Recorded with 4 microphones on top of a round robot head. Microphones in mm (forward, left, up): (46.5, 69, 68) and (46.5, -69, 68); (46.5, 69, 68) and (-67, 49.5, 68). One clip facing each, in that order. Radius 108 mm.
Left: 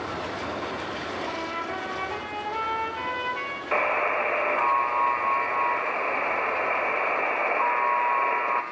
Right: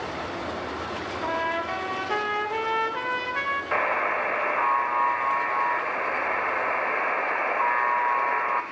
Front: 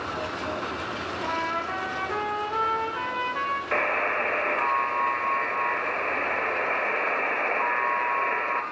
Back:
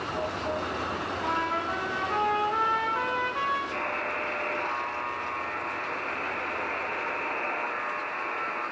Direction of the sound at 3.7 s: 10° left.